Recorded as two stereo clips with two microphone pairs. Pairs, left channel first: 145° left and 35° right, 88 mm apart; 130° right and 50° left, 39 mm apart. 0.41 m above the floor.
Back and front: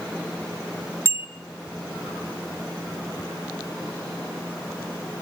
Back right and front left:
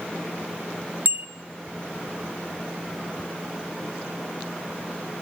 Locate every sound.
1.1 s a bicycle bell: 25° left, 2 m